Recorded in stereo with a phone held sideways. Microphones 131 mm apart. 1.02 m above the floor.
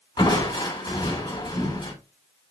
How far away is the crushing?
About 4.5 m.